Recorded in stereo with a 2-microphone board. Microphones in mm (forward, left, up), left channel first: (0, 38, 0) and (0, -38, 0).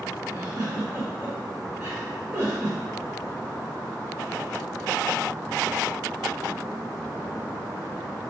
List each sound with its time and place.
0.3 s a giggle: 25° right (ahead or behind), 1.9 m